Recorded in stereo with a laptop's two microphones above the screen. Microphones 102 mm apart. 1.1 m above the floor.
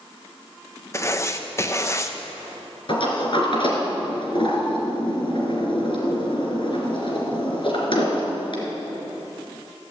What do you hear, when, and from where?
0.9 s writing: 25° left (ahead or behind), 1.0 m
2.9 s a sliding door: 55° left (ahead or behind), 3 m